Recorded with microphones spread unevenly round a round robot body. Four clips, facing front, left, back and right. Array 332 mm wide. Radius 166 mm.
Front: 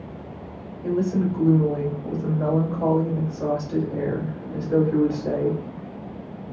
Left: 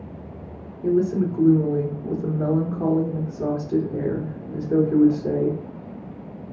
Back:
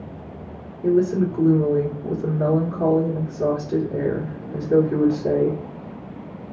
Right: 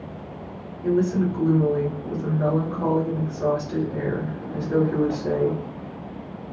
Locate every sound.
0.8 s a woman speaking: 140° left, 1.5 m